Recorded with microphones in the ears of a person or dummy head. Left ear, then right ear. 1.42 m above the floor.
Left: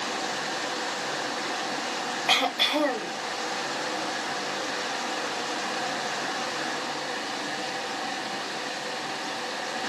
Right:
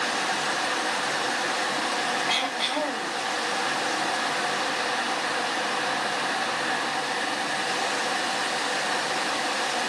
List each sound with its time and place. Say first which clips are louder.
2.3 s throat clearing: left 2 dB; 50° left (ahead or behind), 0.8 m